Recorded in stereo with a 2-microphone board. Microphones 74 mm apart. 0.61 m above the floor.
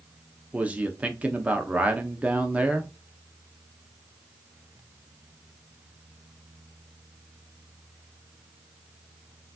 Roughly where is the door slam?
No door slam in this recording.